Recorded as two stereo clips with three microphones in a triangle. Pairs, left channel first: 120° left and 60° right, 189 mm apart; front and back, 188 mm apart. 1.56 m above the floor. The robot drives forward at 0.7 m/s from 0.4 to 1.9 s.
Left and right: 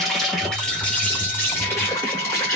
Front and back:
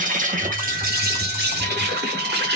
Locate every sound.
0.0 s an insect: 150° right, 1.4 m; by 2.6 s 165° right, 2.5 m